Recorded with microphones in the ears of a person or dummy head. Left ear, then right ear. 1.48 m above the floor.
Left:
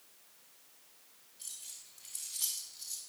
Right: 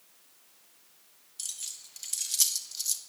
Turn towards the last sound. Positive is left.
turn(degrees=-75)  # may be behind; listen again after turning